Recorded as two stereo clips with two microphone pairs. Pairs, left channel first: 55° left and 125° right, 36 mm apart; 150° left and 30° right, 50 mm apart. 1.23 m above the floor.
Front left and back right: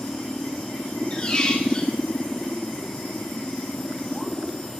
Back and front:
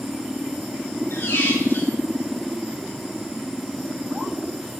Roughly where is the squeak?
Behind left.